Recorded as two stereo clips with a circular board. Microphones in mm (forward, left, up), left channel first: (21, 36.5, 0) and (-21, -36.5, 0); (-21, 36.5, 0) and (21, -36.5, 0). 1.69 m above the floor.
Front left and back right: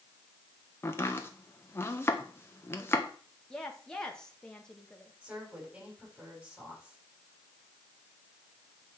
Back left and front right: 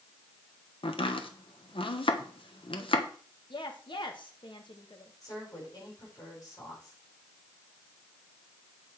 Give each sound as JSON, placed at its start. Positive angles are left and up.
{"t": 0.8, "sound": "chopping", "azimuth_deg": 125, "distance_m": 1.3}
{"t": 3.5, "sound": "a woman speaking", "azimuth_deg": 140, "distance_m": 1.7}
{"t": 5.2, "sound": "a woman speaking", "azimuth_deg": 165, "distance_m": 7.0}